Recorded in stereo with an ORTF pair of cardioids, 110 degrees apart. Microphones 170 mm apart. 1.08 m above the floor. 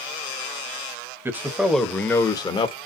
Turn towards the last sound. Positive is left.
turn(degrees=35)